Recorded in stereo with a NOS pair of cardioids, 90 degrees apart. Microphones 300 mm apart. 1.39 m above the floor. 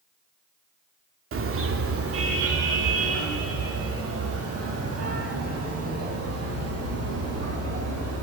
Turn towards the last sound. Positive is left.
turn(degrees=-55)